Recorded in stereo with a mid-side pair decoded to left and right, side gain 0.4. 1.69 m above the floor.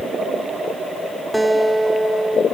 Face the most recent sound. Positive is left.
turn(degrees=-10)